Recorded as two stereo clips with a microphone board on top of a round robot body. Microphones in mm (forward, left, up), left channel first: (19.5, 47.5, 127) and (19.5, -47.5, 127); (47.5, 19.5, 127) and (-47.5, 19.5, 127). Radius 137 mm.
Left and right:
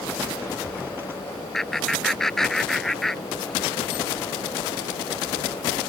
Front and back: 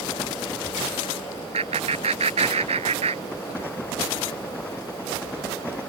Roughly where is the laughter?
Behind.